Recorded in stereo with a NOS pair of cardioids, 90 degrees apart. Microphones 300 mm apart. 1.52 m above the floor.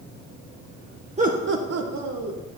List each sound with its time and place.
1.2 s laughter: 20° right, 1.0 m; by 2.4 s 80° right, 1.6 m